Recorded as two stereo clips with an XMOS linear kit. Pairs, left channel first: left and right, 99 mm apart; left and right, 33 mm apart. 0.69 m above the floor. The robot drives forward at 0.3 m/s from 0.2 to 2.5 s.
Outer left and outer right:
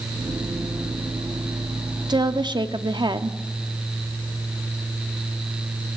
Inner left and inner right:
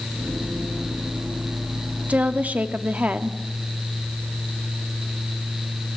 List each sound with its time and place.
2.1 s a woman speaking: 45° right (ahead or behind), 1.0 m; by 3.4 s 50° right (ahead or behind), 0.9 m